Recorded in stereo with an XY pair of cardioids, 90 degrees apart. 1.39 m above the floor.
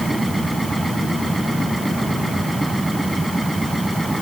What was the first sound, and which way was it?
A machine running, 5° right.